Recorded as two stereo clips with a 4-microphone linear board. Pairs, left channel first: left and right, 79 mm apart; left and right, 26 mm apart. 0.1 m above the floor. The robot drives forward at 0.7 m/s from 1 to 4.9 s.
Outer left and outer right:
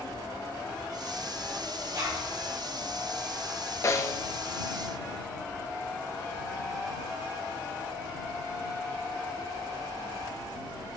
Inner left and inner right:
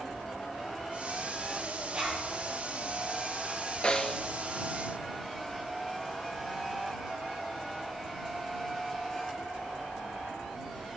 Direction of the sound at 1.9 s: 45° right (ahead or behind).